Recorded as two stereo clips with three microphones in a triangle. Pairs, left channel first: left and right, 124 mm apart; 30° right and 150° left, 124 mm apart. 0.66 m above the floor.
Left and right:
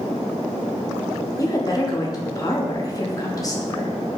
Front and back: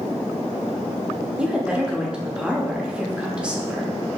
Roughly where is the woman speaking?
Left.